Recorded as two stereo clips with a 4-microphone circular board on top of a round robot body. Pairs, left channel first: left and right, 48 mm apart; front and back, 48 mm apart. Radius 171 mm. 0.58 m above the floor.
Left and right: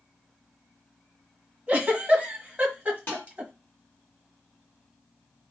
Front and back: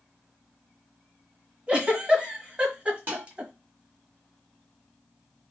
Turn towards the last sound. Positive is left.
turn(degrees=135)